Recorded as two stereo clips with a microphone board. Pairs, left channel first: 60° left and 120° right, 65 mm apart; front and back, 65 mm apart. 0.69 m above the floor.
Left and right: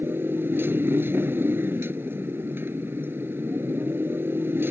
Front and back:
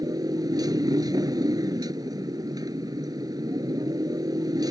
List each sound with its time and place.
0.0 s a motorcycle: 175° right